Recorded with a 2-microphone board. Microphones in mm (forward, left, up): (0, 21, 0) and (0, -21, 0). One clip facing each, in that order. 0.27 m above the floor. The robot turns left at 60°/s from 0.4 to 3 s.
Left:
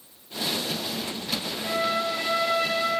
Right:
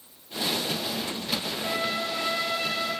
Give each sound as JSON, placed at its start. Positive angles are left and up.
{"t": 1.6, "sound": "a trumpet", "azimuth_deg": -165, "distance_m": 3.5}